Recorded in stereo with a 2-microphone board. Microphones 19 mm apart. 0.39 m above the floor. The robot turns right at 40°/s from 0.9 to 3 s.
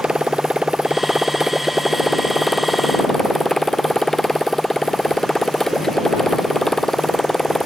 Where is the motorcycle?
55° right; by 7.7 s 30° left.